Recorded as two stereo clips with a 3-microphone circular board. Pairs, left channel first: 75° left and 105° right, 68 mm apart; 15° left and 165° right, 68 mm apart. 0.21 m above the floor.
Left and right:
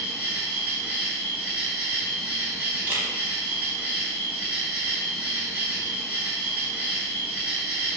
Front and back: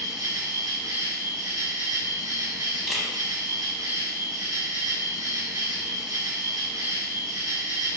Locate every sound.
0.0 s an insect: 170° right, 1.0 m
2.9 s a camera shutter: 85° right, 0.8 m